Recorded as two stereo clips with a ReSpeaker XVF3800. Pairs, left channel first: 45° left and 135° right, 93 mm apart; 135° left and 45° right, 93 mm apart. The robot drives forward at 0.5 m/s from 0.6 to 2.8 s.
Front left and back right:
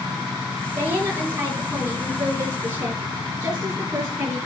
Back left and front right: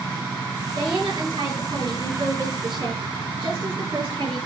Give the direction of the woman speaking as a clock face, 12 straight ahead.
2 o'clock.